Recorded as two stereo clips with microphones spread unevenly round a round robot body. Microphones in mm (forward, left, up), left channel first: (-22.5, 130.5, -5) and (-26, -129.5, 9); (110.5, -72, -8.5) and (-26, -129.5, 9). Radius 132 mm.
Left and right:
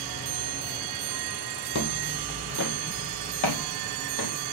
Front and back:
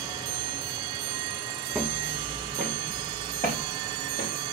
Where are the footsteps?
125° left, 1.8 m; by 4.5 s 95° left, 3 m.